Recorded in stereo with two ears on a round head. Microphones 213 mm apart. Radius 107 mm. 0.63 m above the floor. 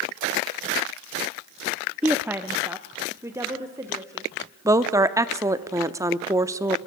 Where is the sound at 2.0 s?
5° right (ahead or behind), 0.6 m; by 4.3 s 15° right (ahead or behind), 2 m.